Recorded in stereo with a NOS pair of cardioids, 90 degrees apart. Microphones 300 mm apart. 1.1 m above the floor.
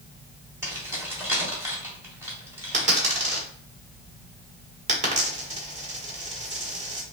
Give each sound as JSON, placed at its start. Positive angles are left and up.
{"t": 0.6, "sound": "keys jangling", "azimuth_deg": -10, "distance_m": 1.9}
{"t": 2.7, "sound": "a dropped coin", "azimuth_deg": -25, "distance_m": 1.7}